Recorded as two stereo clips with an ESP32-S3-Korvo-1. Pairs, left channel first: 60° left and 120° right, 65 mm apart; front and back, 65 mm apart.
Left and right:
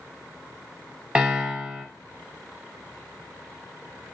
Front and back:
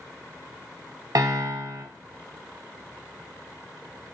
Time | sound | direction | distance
1.1 | a piano | 165° left | 0.5 m